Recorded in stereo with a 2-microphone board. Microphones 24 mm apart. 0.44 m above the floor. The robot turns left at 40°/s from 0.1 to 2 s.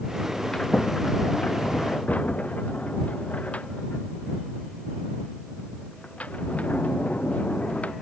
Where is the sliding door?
20° left (ahead or behind); by 7.9 s 80° left.